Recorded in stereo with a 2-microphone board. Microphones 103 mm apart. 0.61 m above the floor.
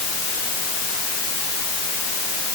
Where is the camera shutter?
I don't hear a camera shutter.